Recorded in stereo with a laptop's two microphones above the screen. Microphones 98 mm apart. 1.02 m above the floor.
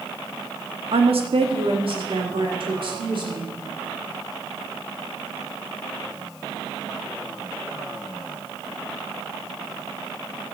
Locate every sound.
0.9 s a woman speaking: 75° right (ahead or behind), 1.4 m; by 3.5 s 55° right (ahead or behind), 3 m